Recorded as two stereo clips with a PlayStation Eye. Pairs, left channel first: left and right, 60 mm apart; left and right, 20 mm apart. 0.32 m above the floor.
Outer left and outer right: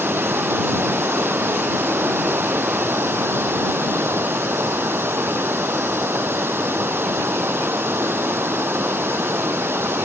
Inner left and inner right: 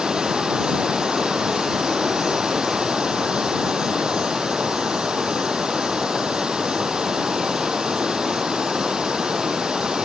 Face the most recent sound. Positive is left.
turn(degrees=-40)  # may be behind; listen again after turning